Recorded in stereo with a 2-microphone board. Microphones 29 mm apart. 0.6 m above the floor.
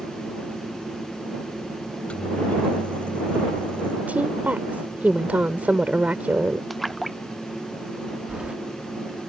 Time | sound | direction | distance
1.9 | a microwave | 45° left (ahead or behind) | ?
4.1 | a woman speaking | 65° right (ahead or behind) | ?
6.7 | a splash | centre (ahead or behind) | ?
8.3 | keys jangling | 45° right (ahead or behind) | ?